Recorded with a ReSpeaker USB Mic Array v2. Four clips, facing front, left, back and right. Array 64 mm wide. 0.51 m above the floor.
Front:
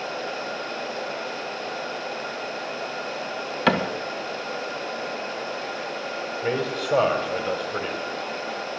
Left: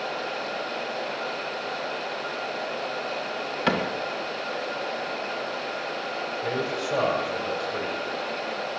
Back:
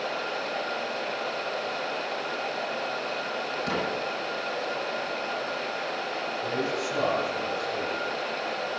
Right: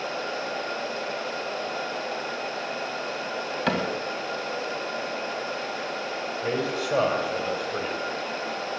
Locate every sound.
3.7 s a cupboard door: 5° left, 1.6 m
6.4 s a man speaking: 10° right, 3 m